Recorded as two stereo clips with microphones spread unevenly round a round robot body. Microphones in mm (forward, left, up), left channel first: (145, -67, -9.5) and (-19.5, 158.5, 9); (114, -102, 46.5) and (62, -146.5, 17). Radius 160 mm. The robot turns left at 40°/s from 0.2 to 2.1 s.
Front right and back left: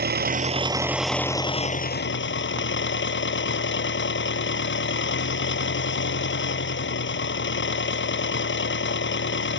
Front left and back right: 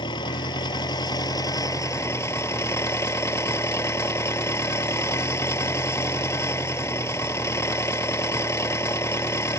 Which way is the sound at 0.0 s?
70° left.